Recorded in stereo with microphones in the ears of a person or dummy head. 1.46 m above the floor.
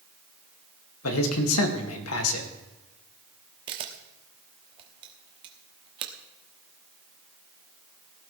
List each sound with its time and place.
1.0 s a man speaking: 85° left, 2.5 m
3.7 s a camera shutter: 30° right (ahead or behind), 1.3 m